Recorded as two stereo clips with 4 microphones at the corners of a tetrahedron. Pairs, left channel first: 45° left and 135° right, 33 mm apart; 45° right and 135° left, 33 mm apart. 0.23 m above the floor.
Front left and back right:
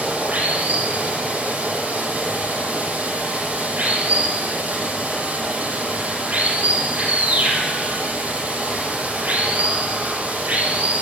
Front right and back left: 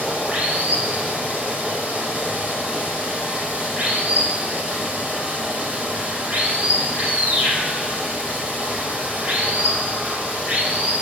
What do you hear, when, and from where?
0.0 s running water: 175° right, 6.5 m